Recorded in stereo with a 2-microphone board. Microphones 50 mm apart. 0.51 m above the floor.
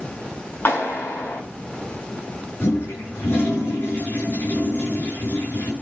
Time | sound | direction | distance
0.7 | a clap | 45° left (ahead or behind) | 4.5 m
2.6 | a toilet flushing | 45° left (ahead or behind) | 5 m